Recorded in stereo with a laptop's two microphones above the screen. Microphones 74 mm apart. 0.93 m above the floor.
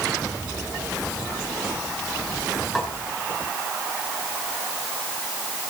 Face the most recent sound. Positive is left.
turn(degrees=0)  # may be behind; listen again after turning